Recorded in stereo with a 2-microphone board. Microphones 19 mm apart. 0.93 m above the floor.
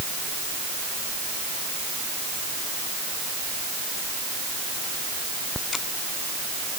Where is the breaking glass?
No breaking glass in this recording.